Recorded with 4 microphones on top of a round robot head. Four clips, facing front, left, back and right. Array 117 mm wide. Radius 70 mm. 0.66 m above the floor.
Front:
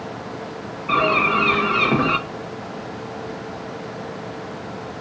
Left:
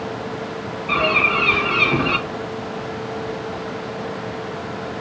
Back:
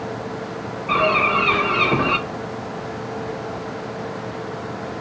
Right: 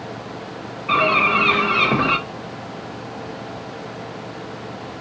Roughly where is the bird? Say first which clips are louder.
Right 2 dB, even; ahead right.